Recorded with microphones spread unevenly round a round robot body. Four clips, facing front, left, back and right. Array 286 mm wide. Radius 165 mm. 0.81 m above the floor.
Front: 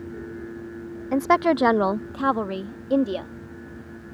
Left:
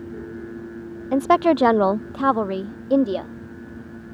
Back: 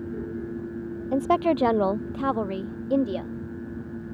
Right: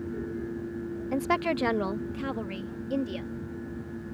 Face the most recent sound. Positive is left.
turn(degrees=65)